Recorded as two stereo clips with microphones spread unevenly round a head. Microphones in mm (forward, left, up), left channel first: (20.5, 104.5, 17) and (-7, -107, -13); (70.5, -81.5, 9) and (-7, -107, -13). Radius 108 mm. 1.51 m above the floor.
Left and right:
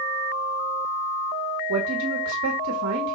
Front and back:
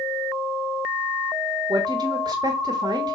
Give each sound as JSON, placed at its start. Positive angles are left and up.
{"t": 1.7, "sound": "a woman speaking", "azimuth_deg": -125, "distance_m": 1.4}